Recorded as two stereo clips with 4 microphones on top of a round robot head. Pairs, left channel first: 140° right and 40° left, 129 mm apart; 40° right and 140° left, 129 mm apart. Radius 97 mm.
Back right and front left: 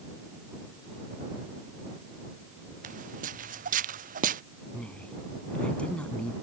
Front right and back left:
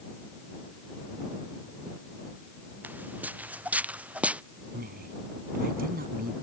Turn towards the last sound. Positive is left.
turn(degrees=140)